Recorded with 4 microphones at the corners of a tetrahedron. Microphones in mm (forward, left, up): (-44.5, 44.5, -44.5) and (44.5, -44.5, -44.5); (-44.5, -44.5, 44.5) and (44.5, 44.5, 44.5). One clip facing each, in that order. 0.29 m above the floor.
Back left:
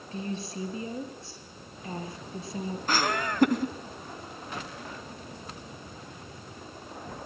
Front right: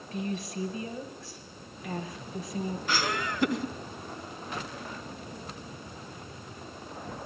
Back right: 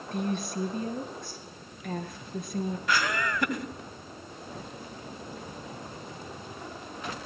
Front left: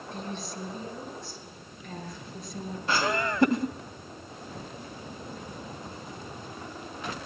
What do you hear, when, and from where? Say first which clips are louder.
0.1 s a woman speaking: front right 1 dB, back right 7 dB; 165° right, 6.5 m
2.9 s laughter: back left 5 dB, front left 4 dB; 100° left, 2 m